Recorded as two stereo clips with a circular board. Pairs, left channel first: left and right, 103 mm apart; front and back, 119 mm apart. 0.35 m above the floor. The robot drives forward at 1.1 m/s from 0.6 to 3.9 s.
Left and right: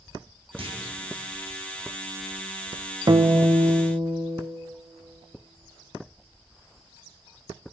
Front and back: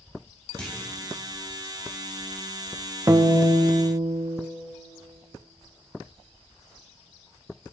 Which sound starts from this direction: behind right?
A guitar, at 3.1 s.